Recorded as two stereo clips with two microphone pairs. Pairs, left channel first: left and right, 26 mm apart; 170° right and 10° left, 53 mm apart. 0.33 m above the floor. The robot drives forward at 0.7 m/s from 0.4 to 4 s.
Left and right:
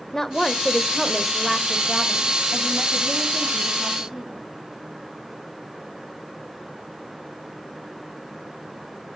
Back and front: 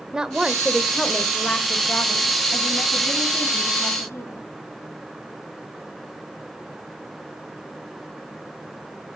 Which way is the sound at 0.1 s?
50° left.